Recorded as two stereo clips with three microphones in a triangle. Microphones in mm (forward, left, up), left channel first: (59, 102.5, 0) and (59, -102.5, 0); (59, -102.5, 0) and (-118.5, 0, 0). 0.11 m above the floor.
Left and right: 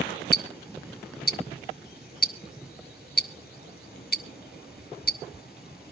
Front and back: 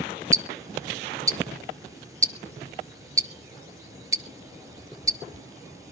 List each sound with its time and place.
0.3 s ticking: 80° left, 0.7 m